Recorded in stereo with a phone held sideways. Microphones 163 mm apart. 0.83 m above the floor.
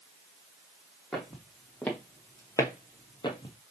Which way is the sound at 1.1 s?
Centre (ahead or behind).